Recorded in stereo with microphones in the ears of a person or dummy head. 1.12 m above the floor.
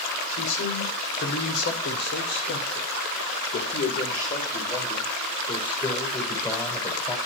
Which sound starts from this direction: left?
A man speaking, at 0.3 s.